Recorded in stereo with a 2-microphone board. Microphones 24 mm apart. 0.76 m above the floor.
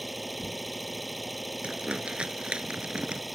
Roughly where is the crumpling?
Right.